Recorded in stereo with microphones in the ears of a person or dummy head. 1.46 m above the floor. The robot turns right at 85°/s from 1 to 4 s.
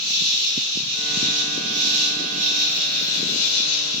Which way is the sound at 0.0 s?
155° right.